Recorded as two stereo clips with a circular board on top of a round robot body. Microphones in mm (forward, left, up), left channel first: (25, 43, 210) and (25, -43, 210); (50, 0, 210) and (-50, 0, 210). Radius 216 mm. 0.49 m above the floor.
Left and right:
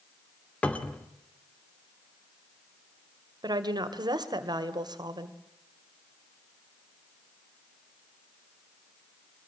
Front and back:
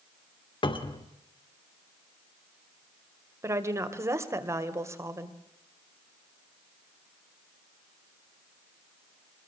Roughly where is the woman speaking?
Behind right.